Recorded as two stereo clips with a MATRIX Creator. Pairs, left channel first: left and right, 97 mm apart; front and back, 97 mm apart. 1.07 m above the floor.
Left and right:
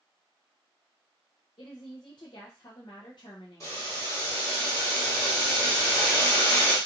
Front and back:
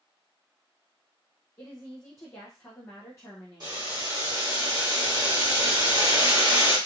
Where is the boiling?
140° left, 1.4 m.